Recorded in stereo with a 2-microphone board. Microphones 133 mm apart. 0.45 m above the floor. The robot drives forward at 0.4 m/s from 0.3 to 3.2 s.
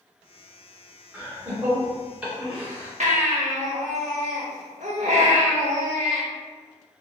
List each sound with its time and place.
1.1 s laughter: 10° right (ahead or behind), 1.6 m; by 2.9 s 5° right (ahead or behind), 2 m
3.0 s a baby crying: 65° right (ahead or behind), 0.7 m